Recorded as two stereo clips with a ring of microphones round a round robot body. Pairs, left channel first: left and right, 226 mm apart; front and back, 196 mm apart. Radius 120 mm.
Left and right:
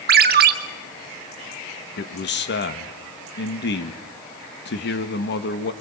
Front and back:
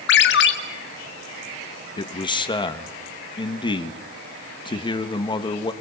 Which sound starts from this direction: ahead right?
A ringtone, at 0.1 s.